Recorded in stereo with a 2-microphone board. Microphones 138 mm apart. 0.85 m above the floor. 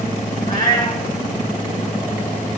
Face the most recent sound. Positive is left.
turn(degrees=65)  # may be behind; listen again after turning